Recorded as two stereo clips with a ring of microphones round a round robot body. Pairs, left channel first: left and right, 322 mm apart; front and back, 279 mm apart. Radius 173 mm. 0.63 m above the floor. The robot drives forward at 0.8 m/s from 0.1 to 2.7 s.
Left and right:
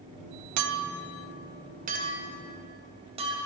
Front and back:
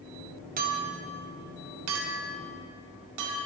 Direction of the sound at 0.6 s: 115° right.